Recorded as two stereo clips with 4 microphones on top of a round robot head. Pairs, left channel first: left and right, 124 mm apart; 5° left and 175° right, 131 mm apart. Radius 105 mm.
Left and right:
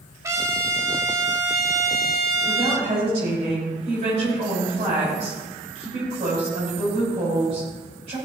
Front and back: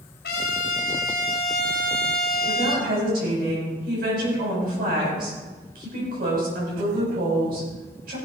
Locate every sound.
0.2 s a trumpet: 25° right, 2 m
2.5 s a woman speaking: 145° right, 6.5 m